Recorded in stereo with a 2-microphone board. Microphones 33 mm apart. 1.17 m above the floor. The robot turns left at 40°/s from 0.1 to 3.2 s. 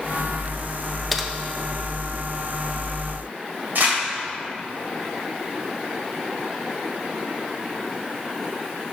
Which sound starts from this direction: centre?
Typing on a keyboard, at 1.1 s.